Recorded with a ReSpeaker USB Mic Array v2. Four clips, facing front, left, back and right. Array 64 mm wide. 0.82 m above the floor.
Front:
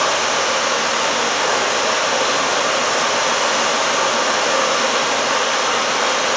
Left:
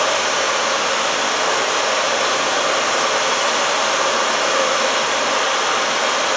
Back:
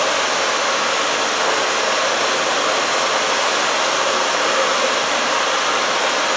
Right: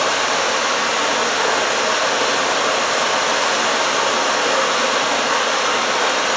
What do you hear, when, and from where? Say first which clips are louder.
0.0 s running water: even, even; 70° right, 6.5 m